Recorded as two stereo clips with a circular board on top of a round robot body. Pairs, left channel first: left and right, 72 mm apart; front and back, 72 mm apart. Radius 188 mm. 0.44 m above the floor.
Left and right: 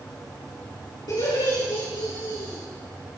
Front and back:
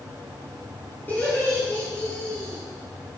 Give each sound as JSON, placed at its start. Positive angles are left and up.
{"t": 1.1, "sound": "laughter", "azimuth_deg": 65, "distance_m": 8.5}